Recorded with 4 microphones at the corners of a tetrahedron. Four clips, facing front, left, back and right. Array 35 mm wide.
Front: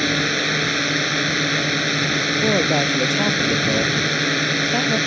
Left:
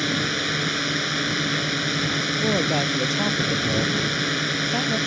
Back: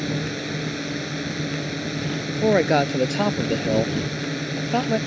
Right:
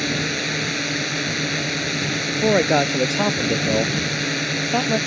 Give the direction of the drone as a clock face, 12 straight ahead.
12 o'clock.